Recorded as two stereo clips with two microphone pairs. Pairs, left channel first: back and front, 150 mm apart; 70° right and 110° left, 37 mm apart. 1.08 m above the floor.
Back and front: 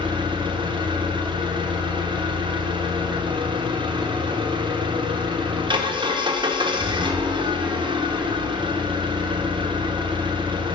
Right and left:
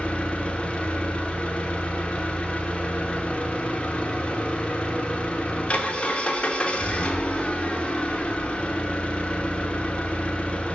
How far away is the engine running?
About 0.8 m.